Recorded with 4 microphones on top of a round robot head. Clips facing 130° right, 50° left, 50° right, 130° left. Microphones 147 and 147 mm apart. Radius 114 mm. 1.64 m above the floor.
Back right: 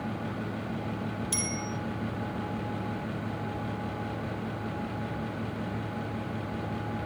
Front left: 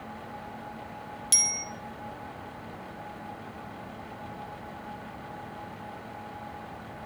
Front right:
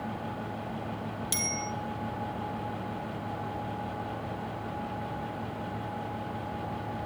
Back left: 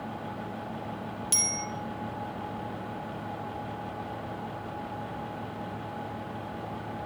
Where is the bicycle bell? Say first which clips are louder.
Back right 6 dB, front right 1 dB; 55° left, 4 m.